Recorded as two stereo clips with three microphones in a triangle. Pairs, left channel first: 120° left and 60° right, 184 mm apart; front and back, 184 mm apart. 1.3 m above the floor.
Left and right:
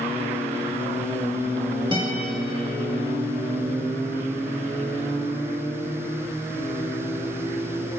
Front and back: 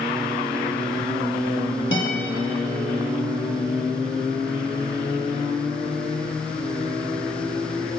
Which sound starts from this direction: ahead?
A guitar, at 1.9 s.